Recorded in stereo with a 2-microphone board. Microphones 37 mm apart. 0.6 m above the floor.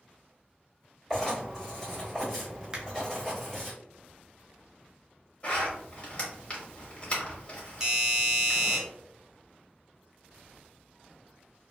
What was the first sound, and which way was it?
Writing, 5° left (ahead or behind).